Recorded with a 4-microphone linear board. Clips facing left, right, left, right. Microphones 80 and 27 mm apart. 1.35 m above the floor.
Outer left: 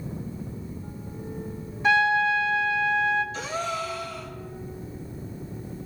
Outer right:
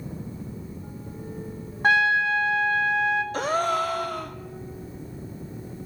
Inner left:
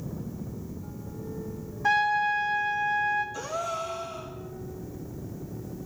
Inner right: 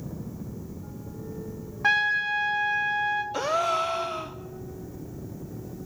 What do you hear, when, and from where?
1.8 s a trumpet: 50° right (ahead or behind), 1.7 m
3.3 s a gasp: 50° right (ahead or behind), 0.6 m